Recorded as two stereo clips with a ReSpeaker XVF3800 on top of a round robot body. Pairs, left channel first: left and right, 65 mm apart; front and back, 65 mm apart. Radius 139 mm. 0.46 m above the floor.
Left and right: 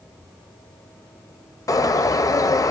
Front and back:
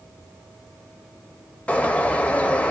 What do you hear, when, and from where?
1.7 s a bird: 70° left, 0.7 m